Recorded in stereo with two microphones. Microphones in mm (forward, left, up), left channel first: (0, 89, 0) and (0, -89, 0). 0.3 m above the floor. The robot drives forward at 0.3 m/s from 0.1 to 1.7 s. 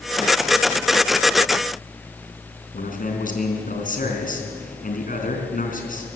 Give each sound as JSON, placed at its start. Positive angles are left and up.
{"t": 2.7, "sound": "a man speaking", "side_deg": 50, "distance_m": 3.5}